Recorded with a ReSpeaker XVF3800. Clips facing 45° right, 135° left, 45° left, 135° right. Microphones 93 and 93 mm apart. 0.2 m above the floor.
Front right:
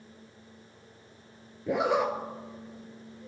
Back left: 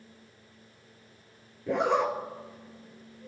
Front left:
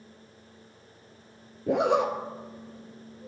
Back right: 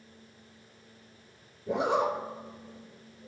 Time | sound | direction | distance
1.7 | a zipper | 40° left | 0.8 m